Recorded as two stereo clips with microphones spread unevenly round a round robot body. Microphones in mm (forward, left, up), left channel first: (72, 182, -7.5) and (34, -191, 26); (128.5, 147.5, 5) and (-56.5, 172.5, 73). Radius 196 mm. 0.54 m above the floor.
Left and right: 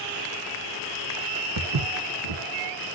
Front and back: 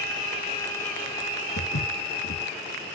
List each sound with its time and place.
1.6 s footsteps: 60° right, 2 m